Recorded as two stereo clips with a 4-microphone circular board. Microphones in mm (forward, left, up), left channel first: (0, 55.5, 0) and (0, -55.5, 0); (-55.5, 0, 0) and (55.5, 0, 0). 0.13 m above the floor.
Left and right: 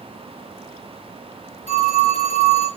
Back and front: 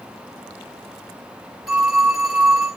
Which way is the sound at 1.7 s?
85° left.